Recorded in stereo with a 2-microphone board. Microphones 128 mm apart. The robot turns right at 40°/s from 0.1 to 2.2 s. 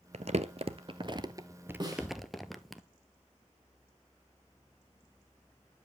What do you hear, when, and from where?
0.1 s crumpling: 60° right (ahead or behind), 0.9 m; by 2.8 s centre (ahead or behind), 0.9 m
1.8 s a snare drum: 35° right (ahead or behind), 4 m; by 2.1 s 25° right (ahead or behind), 4 m